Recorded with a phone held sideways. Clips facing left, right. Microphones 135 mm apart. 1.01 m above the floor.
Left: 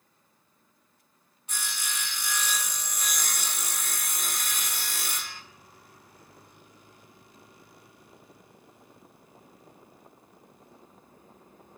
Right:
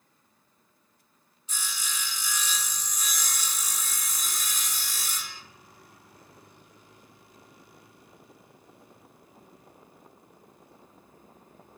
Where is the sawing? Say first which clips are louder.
Left 1 dB; 60° left (ahead or behind), 0.7 m.